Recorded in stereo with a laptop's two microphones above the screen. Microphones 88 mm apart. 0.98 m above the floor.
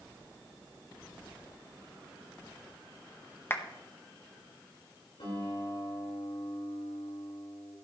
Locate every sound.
3.5 s a clap: 25° left (ahead or behind), 0.7 m
5.2 s a guitar: 75° left (ahead or behind), 5 m